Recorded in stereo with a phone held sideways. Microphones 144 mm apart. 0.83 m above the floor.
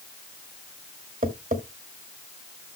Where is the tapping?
75° right (ahead or behind), 1.7 m.